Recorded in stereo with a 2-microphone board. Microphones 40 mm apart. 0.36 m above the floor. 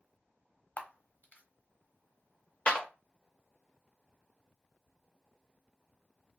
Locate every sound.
0.8 s a camera shutter: 45° left (ahead or behind), 0.6 m
2.7 s a clap: 25° left (ahead or behind), 0.6 m